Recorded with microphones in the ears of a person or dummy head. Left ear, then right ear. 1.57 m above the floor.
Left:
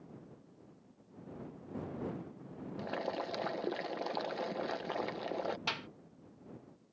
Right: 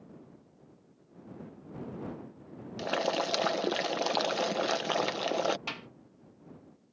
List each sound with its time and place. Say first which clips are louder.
2.8 s boiling: right 8 dB; 35° right (ahead or behind)
5.7 s a clap: left 1 dB; 15° left (ahead or behind)